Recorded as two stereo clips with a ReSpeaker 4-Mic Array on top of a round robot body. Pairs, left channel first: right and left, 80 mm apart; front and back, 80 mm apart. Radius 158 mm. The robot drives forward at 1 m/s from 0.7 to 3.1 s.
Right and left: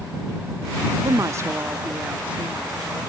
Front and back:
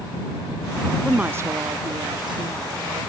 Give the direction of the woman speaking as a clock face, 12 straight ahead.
9 o'clock.